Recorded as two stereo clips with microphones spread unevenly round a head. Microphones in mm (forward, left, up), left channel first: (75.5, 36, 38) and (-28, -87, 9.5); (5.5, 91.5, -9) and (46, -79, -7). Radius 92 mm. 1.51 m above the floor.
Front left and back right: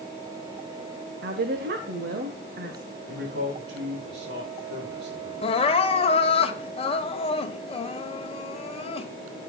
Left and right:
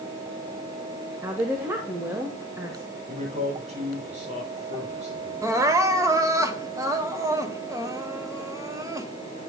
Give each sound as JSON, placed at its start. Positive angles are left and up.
{"t": 1.2, "sound": "a woman speaking", "azimuth_deg": -155, "distance_m": 1.3}
{"t": 3.1, "sound": "a man speaking", "azimuth_deg": -130, "distance_m": 7.0}
{"t": 5.4, "sound": "crying", "azimuth_deg": -5, "distance_m": 1.2}